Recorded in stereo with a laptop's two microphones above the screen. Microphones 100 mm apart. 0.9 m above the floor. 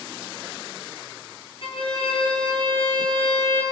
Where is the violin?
60° left (ahead or behind), 5.5 m.